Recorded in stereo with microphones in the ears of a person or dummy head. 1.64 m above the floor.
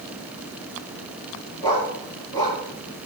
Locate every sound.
1.6 s a dog barking: 25° left (ahead or behind), 8 m